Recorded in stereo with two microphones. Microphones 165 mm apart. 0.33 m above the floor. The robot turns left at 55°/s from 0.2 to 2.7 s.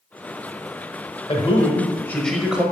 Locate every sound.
1.3 s a man speaking: 60° left, 1.1 m; by 2.6 s 15° right, 1.1 m